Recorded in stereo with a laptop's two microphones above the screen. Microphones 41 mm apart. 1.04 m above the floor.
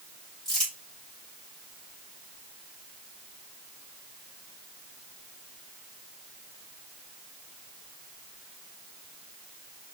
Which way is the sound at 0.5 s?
5° left (ahead or behind).